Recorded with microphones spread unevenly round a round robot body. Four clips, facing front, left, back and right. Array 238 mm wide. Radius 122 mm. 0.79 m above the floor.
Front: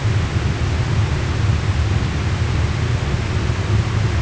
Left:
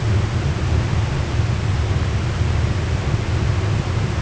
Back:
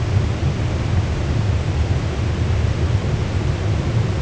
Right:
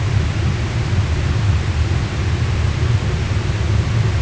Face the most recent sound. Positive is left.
No sound to turn to.